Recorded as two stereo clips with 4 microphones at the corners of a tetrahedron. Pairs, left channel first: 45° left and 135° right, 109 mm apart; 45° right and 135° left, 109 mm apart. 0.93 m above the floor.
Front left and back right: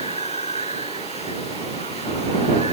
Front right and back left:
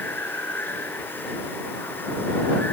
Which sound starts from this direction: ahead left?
Running water, at 0.0 s.